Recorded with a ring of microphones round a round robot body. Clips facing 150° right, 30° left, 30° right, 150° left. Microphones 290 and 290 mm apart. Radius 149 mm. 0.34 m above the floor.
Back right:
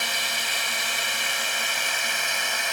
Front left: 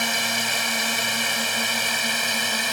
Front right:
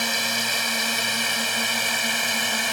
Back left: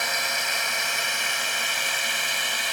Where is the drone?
10° left; by 2.7 s 5° right.